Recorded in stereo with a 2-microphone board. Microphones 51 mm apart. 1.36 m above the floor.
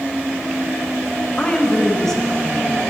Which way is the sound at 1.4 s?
30° left (ahead or behind).